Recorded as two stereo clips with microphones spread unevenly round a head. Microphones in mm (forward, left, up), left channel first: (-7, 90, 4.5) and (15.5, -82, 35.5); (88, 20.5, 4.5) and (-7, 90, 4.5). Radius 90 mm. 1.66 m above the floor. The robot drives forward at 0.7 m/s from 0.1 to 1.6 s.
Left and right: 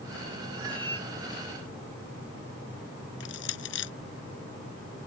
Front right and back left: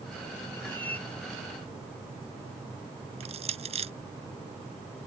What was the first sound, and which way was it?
A cat meowing, 90° right.